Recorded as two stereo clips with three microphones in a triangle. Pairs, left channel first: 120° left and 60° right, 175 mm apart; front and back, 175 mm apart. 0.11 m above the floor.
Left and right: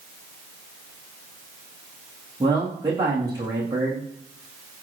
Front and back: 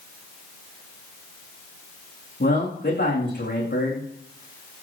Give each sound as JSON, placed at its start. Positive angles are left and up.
{"t": 2.4, "sound": "a man speaking", "azimuth_deg": 10, "distance_m": 9.0}